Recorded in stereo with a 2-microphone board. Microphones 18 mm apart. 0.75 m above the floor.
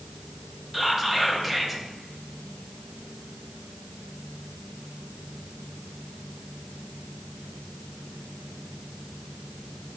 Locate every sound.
0.7 s whispering: 5° right (ahead or behind), 0.6 m